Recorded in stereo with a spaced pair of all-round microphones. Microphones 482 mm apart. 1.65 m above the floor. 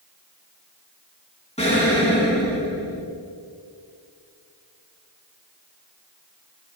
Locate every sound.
1.6 s an explosion: 15° left (ahead or behind), 4 m